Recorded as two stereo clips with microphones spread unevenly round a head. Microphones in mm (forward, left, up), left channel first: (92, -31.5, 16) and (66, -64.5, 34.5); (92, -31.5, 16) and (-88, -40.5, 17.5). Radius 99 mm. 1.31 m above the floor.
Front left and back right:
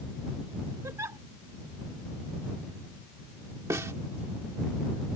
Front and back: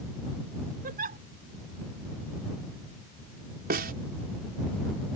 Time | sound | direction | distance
0.8 | a giggle | 135° right | ?
3.7 | a snare drum | 140° right | ?